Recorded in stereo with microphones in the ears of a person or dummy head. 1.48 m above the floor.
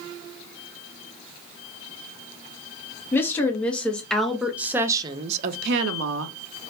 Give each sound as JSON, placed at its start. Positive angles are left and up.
{"t": 3.1, "sound": "a woman speaking", "side_deg": 15, "distance_m": 1.4}